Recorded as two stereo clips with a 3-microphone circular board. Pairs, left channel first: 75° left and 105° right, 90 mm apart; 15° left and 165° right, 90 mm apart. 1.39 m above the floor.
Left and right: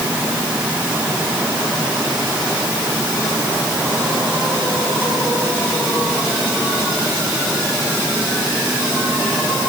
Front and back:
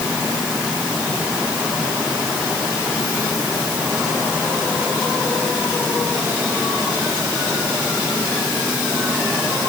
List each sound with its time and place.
Only background noise.